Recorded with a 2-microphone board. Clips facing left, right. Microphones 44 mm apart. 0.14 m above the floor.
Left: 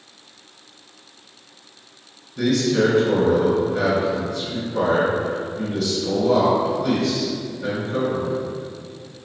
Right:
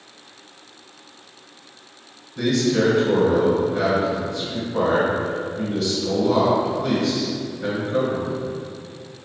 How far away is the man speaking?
About 1.6 m.